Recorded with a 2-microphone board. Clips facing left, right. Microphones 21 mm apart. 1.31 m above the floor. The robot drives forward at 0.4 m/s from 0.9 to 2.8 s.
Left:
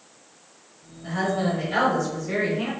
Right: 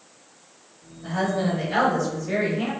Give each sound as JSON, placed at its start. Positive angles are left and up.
{"t": 1.0, "sound": "a woman speaking", "side_deg": -20, "distance_m": 1.3}